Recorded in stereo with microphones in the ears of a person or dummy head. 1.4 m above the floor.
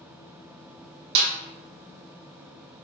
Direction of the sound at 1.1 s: 75° right (ahead or behind).